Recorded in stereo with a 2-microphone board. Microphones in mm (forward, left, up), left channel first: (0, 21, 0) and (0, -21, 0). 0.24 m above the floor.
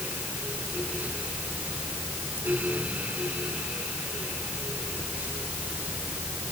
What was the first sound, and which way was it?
Only background noise.